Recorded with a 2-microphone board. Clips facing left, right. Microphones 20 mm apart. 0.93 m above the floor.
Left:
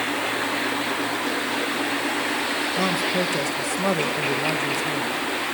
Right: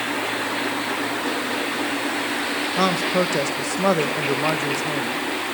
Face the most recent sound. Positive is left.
turn(degrees=-25)  # may be behind; listen again after turning